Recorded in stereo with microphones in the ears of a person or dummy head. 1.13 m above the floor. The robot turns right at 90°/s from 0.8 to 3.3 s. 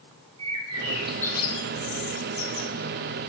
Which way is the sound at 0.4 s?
25° right.